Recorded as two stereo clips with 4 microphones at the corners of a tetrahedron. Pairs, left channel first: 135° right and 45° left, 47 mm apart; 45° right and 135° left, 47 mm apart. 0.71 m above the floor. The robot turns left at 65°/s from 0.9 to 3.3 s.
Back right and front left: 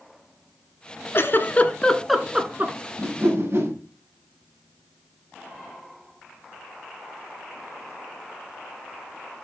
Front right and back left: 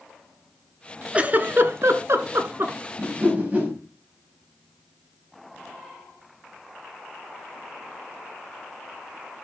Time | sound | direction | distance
1.1 | a giggle | 165° right | 1.3 m
3.0 | a whoosh | 95° left | 5.5 m